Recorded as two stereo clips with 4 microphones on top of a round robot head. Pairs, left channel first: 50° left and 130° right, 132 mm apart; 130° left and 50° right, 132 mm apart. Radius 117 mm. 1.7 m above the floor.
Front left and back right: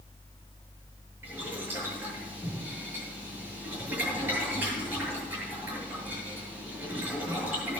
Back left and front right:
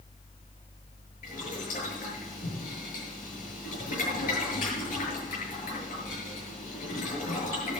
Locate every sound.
1.2 s boiling: 155° left, 8 m